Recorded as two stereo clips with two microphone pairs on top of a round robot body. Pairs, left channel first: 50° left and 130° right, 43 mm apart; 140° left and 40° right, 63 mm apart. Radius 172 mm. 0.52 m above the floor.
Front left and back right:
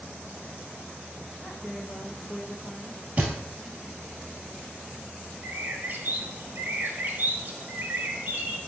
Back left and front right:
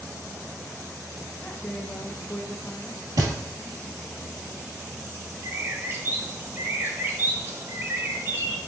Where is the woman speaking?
115° left, 1.2 m.